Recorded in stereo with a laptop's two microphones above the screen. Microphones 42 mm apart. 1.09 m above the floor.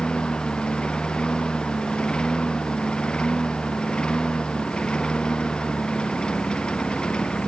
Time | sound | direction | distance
0.0 | a lawn mower | 20° left (ahead or behind) | ?